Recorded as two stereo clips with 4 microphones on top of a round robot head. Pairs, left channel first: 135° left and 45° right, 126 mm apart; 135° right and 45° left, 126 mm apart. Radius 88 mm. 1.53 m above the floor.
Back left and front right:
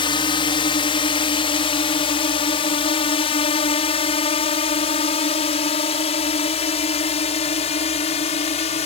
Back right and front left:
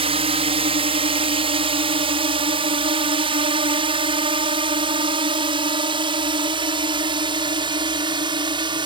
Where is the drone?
85° left; by 8.9 s 95° left.